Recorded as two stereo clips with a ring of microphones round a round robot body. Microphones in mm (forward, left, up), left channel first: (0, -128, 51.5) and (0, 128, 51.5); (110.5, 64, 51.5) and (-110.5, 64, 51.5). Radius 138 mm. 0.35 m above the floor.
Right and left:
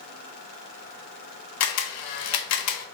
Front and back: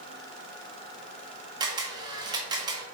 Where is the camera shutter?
110° right, 0.6 m.